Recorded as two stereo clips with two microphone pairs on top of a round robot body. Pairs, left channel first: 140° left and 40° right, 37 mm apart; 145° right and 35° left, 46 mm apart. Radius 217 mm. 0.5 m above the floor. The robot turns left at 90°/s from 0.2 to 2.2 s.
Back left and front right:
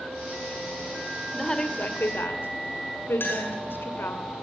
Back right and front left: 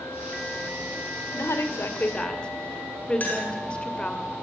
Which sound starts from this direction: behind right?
A woman speaking, at 1.3 s.